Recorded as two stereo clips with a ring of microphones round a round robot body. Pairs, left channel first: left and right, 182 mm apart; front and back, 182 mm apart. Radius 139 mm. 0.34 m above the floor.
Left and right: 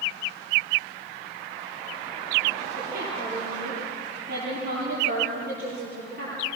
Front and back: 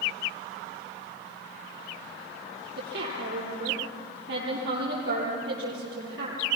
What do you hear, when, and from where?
2.8 s a woman speaking: 145° right, 9.5 m